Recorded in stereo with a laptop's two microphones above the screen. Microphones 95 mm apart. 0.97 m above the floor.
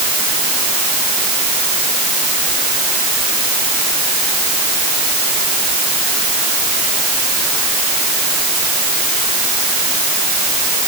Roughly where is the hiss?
No hiss in this recording.